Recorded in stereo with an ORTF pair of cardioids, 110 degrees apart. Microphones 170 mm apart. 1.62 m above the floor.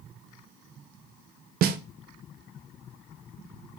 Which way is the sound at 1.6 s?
60° right.